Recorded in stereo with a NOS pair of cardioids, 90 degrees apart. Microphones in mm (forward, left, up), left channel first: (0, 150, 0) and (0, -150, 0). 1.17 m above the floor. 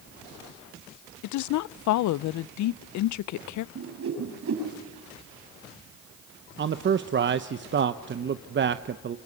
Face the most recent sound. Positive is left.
turn(degrees=-35)